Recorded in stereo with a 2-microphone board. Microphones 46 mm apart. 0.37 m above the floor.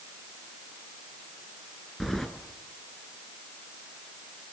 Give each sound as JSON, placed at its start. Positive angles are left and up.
{"t": 2.0, "sound": "keys jangling", "side_deg": 5, "distance_m": 3.0}